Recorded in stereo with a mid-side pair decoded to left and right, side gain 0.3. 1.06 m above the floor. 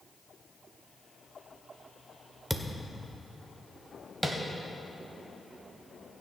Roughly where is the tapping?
Ahead.